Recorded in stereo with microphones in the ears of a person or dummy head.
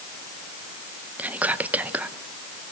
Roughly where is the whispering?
Centre.